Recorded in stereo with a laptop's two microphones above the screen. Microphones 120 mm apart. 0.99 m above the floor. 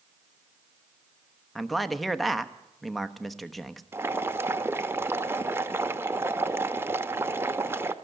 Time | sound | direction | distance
1.6 | a man speaking | centre (ahead or behind) | 1.0 m
3.9 | boiling | 20° right (ahead or behind) | 0.8 m